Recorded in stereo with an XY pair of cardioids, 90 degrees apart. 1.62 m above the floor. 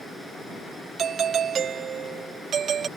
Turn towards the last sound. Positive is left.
turn(degrees=-60)